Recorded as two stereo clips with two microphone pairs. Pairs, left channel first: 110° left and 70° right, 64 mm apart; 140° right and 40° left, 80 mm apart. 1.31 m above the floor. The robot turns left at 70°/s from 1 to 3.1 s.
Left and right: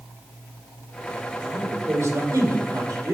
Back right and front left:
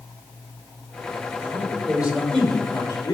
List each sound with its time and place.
1.4 s a man speaking: 5° left, 5 m; by 3.1 s 115° right, 5 m